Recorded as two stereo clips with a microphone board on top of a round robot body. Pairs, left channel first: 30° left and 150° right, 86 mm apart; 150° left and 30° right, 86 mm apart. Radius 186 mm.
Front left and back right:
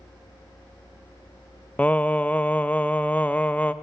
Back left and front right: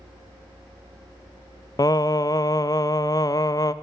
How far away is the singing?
About 0.5 m.